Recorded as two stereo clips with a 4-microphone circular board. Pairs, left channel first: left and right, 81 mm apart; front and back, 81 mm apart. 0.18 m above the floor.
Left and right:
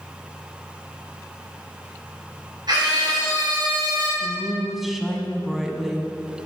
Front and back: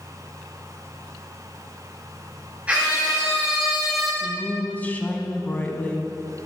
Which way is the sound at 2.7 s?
110° right.